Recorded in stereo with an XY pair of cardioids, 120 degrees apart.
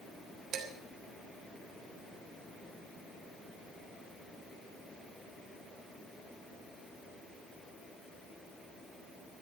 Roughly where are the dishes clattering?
Ahead right.